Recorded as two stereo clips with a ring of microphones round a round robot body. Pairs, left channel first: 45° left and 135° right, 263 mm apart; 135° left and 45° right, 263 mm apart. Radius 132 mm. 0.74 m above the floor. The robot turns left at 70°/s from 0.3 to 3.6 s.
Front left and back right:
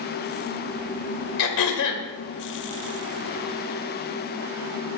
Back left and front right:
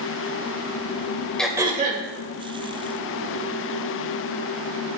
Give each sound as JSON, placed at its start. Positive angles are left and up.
{"t": 1.4, "sound": "throat clearing", "azimuth_deg": 50, "distance_m": 2.0}